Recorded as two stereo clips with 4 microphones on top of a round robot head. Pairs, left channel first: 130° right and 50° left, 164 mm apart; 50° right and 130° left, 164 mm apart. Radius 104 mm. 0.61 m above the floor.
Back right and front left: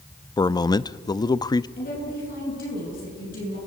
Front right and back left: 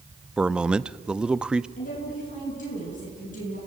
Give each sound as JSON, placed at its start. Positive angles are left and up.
{"t": 0.4, "sound": "a man speaking", "azimuth_deg": -155, "distance_m": 0.6}
{"t": 1.8, "sound": "a woman speaking", "azimuth_deg": -95, "distance_m": 9.0}